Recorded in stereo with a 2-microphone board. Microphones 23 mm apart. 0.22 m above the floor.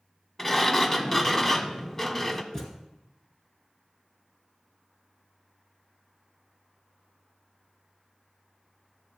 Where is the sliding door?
20° left (ahead or behind), 0.6 m.